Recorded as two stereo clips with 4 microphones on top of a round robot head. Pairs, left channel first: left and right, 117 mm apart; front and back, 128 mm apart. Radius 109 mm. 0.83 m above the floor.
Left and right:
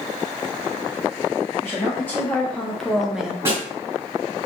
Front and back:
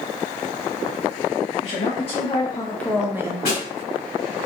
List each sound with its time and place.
1.6 s a woman speaking: 20° left, 0.9 m; by 3.4 s 165° right, 0.5 m
3.5 s a snare drum: 25° right, 1.5 m